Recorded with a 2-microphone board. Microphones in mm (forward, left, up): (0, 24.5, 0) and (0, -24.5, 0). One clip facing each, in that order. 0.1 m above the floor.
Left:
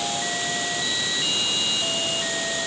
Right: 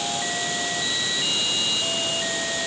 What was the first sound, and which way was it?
Only background noise.